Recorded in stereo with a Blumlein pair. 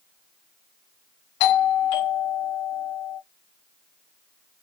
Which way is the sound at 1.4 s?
50° left.